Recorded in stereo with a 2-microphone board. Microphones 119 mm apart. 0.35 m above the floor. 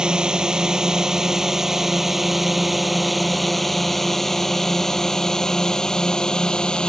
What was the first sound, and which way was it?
A drone, 5° right (ahead or behind).